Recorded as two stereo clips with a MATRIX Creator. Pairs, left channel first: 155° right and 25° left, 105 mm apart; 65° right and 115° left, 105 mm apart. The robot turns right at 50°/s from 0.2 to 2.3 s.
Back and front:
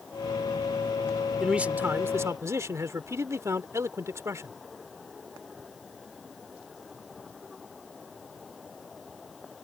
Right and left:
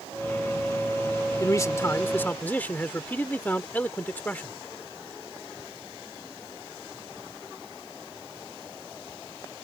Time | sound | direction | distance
1.4 | a man speaking | 55° right | ?